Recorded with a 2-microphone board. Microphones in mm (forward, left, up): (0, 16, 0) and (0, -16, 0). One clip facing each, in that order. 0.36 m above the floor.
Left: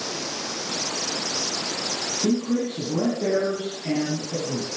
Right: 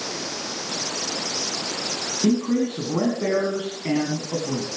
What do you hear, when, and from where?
2.2 s a man speaking: 55° right (ahead or behind), 3 m